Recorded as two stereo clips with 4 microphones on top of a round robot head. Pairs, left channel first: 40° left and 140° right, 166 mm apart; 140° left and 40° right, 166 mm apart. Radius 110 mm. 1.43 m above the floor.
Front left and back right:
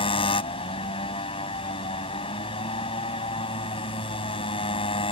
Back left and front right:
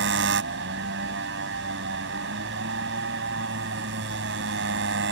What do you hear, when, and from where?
0.0 s a motorcycle: 20° right